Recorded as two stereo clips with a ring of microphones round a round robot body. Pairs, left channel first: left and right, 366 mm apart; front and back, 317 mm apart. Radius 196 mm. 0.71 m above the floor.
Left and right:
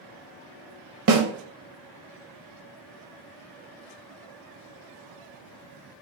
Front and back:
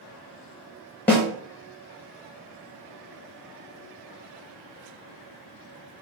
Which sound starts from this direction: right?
A snare drum, at 1.1 s.